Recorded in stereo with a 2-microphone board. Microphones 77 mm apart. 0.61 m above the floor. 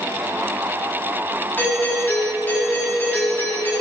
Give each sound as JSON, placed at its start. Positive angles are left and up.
{"t": 1.6, "sound": "a doorbell", "side_deg": 25, "distance_m": 5.5}